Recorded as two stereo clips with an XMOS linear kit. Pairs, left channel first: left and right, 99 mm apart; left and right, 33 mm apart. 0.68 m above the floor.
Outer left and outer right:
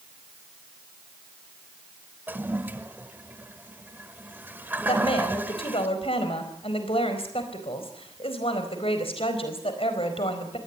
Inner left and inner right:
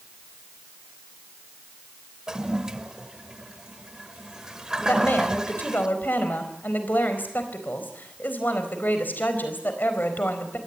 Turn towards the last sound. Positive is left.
turn(degrees=70)  # may be behind; listen again after turning